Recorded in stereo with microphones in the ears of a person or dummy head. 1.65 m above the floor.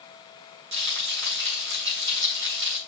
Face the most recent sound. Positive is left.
turn(degrees=-65)  # may be behind; listen again after turning